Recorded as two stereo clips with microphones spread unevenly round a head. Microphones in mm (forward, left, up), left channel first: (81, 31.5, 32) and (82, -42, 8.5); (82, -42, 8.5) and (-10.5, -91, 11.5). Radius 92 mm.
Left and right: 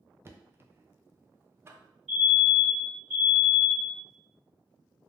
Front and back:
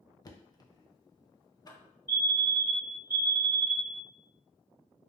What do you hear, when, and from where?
0.2 s knocking: 30° right, 0.6 m
2.1 s a fire alarm: 10° right, 1.9 m